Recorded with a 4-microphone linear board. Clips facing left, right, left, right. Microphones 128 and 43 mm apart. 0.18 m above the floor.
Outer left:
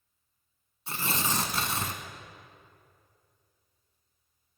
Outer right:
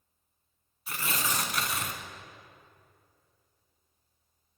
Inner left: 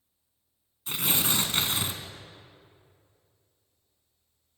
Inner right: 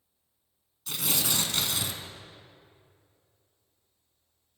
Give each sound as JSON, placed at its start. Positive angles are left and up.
{"t": 0.9, "sound": "tearing paper", "side_deg": 30, "distance_m": 0.8}